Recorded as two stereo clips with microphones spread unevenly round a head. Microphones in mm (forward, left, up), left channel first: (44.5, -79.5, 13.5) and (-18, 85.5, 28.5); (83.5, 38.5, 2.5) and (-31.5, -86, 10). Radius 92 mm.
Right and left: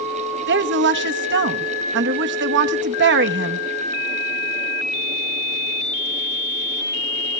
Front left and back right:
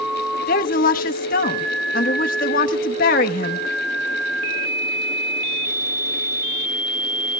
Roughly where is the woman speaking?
Left.